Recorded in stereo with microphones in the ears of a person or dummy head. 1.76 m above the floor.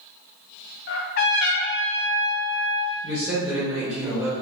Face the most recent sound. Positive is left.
turn(degrees=-15)  # may be behind; listen again after turning